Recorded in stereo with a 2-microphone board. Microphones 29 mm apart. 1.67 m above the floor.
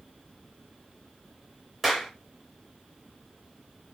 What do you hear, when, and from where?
1.8 s a clap: 10° right (ahead or behind), 1.9 m